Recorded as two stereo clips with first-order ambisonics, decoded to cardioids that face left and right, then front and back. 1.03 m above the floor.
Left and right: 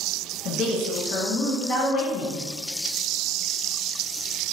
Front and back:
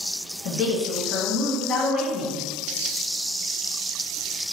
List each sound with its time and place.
0.5 s a woman speaking: 45° left, 0.7 m